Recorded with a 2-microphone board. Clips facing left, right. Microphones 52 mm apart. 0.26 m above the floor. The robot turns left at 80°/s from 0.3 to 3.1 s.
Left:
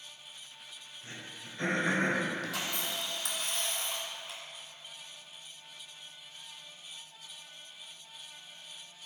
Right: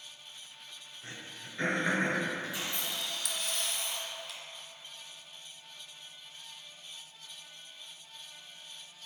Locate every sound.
1.0 s throat clearing: 75° right (ahead or behind), 2 m; by 2.2 s 15° left (ahead or behind), 2 m
2.4 s a camera shutter: 85° left, 1.3 m; by 4.4 s 30° left, 1.3 m